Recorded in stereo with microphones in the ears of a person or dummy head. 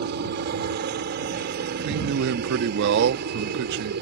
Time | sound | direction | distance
0.0 | a helicopter | 60° right (ahead or behind) | ?
1.8 | a man speaking | 60° right (ahead or behind) | ?